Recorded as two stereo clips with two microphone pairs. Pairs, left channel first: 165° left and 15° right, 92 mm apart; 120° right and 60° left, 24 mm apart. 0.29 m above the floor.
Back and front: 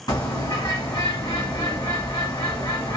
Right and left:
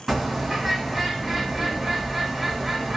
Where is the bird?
135° left, 1.5 m.